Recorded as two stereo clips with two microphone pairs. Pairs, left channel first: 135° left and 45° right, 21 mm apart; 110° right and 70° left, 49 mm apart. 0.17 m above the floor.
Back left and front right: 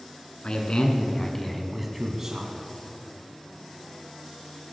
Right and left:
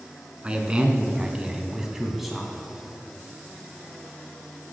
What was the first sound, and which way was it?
A man speaking, 130° left.